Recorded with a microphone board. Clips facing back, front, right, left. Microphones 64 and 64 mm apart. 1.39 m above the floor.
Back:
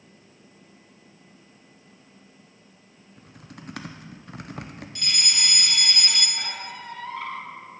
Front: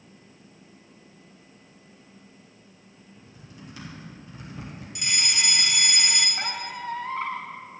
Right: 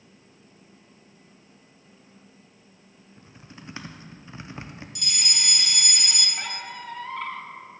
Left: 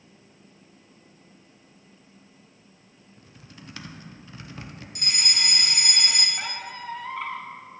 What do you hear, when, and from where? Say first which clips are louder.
3.2 s typing on a keyboard: back 3 dB, right 2 dB; 155° right, 0.7 m
5.0 s a fire alarm: front 1 dB, left 3 dB; 70° left, 0.9 m
6.4 s a squeak: front 3 dB, even; 10° left, 1.0 m